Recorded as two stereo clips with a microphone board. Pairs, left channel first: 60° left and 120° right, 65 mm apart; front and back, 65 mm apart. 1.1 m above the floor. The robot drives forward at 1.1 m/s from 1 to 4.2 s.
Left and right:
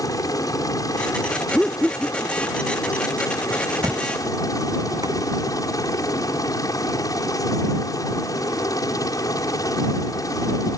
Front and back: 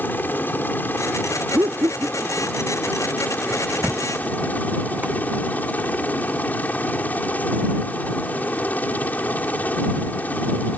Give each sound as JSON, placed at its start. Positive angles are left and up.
{"t": 0.0, "sound": "a helicopter", "azimuth_deg": 55}
{"t": 1.5, "sound": "laughter", "azimuth_deg": 145}
{"t": 3.8, "sound": "a thud", "azimuth_deg": -110}